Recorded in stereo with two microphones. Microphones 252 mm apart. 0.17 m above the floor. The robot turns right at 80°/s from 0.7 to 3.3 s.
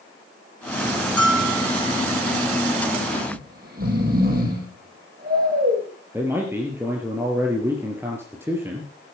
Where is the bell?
110° right, 2.5 m; by 2.0 s 45° right, 2.5 m.